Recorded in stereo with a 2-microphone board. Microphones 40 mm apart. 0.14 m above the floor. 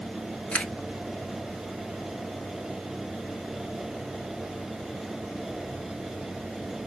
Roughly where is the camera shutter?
Left.